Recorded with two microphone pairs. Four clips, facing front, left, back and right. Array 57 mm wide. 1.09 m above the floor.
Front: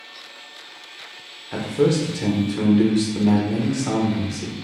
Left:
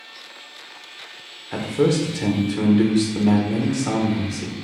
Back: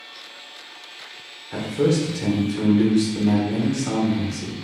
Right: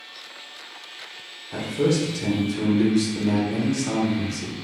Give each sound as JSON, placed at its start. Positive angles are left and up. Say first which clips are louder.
{"t": 1.5, "sound": "a man speaking", "louder": "left 3 dB, front 1 dB", "azimuth_deg": 80, "distance_m": 0.9}